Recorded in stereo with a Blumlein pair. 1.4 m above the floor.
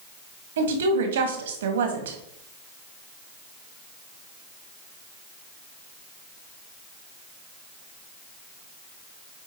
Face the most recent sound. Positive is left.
turn(degrees=-60)